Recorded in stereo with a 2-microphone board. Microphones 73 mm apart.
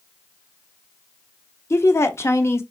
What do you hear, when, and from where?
1.7 s a woman speaking: 35° left (ahead or behind), 0.8 m